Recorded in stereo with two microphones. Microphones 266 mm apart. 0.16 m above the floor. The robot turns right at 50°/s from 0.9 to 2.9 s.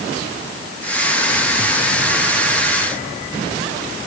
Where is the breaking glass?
I don't hear breaking glass.